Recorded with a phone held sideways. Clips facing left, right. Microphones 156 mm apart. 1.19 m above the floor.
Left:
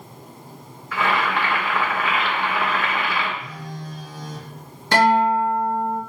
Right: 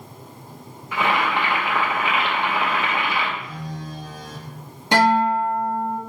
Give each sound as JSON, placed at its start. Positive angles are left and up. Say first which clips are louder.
{"t": 0.9, "sound": "boiling", "louder": "even", "side_deg": -20, "distance_m": 0.7}
{"t": 3.4, "sound": "a phone buzzing", "louder": "right 2 dB", "side_deg": -25, "distance_m": 1.8}
{"t": 4.9, "sound": "a guitar", "louder": "left 1 dB", "side_deg": -20, "distance_m": 2.0}